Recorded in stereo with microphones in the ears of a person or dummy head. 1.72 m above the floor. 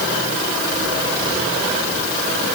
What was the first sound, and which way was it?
Only background noise.